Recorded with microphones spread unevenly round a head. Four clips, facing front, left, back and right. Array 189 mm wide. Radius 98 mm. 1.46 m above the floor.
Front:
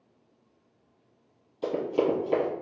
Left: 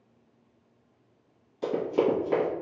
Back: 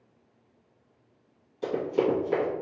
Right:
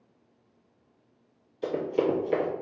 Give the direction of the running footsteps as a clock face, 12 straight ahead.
9 o'clock.